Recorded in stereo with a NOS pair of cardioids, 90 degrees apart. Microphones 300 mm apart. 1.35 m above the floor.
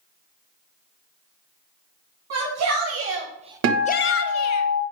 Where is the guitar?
60° right, 1.1 m.